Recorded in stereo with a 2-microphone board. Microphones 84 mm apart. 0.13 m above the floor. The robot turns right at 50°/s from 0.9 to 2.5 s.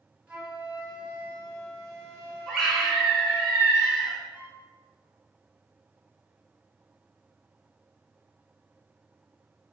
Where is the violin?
35° right (ahead or behind), 1.4 m.